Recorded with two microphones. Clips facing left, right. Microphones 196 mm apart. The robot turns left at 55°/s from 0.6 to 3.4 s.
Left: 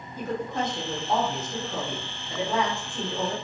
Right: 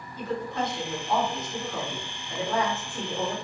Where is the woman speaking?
115° left, 1.0 m; by 3.3 s 35° right, 1.0 m.